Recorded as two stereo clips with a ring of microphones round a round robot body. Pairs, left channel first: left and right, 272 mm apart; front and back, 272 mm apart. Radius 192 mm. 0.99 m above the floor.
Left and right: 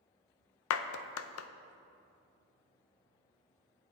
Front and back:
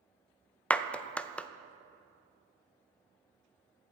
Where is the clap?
85° left, 0.5 m.